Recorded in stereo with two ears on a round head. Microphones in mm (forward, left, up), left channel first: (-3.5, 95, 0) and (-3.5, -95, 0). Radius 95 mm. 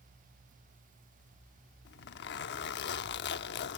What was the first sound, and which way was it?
A zipper, 55° left (ahead or behind).